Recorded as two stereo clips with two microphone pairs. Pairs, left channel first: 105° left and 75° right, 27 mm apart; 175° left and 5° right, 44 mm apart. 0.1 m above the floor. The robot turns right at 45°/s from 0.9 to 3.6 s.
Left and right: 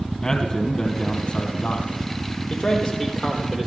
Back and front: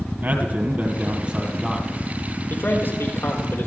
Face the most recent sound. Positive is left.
turn(degrees=-145)